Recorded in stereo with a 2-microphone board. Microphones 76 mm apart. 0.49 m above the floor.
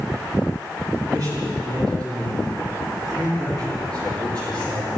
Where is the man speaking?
60° right (ahead or behind), 4.5 m; by 5.0 s 65° right (ahead or behind), 9 m.